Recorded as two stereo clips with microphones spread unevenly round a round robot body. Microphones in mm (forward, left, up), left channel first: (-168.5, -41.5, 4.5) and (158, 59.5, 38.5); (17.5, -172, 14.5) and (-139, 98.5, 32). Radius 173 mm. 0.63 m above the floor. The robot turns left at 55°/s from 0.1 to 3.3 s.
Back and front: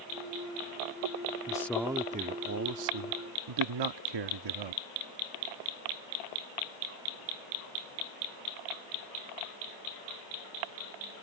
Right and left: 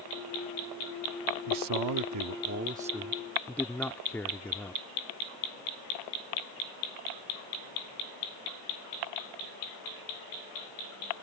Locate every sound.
1.5 s a man speaking: 125° left; by 4.8 s 25° left